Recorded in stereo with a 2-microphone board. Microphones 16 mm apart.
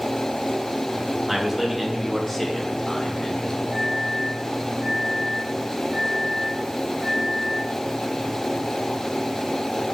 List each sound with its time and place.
1.3 s a man speaking: 10° right (ahead or behind), 3 m; by 3.6 s 50° left (ahead or behind), 2.5 m
3.7 s a microwave: 30° right (ahead or behind), 3.5 m